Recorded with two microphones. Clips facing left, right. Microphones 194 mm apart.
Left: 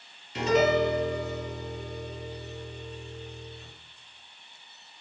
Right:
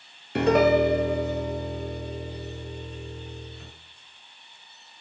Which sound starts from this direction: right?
A piano, at 0.3 s.